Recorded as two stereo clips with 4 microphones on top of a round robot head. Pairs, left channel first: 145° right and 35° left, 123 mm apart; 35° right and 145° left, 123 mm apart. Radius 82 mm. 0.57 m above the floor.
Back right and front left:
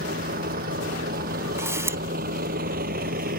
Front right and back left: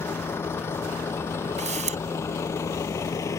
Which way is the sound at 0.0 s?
35° left.